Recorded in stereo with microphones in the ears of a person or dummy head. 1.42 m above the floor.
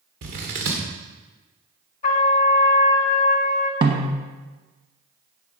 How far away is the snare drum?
About 1.3 m.